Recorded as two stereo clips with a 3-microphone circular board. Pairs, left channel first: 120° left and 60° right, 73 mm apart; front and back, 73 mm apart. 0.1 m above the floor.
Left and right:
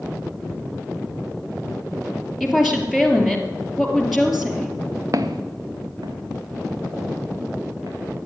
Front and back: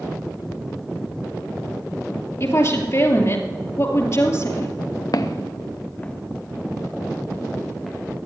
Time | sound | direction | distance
2.4 | a woman speaking | 25° left | 2.5 m
5.1 | footsteps | 25° right | 1.1 m